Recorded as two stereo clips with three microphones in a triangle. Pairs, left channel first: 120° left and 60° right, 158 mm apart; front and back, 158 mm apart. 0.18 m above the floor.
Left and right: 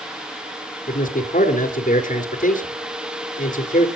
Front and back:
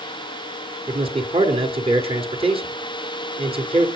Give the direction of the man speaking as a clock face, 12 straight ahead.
8 o'clock.